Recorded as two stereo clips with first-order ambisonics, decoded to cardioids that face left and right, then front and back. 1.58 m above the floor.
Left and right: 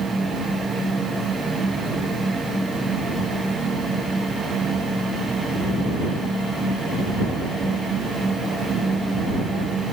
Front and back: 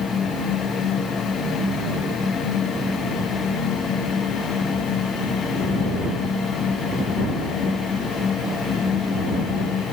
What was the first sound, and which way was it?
Only background noise.